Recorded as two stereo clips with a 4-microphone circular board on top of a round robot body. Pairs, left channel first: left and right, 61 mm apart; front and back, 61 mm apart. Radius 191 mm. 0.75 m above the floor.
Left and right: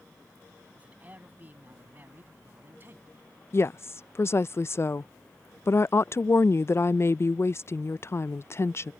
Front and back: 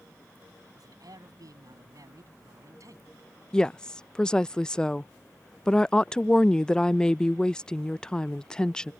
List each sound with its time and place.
0.8 s a man speaking: 155° right; by 3.3 s 145° right
3.5 s a woman speaking: 75° left